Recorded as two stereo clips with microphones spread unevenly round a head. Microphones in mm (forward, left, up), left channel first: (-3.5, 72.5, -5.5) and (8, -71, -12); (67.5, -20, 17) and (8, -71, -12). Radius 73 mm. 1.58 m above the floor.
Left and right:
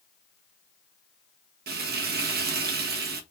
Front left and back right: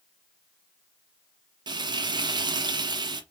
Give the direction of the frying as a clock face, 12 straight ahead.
3 o'clock.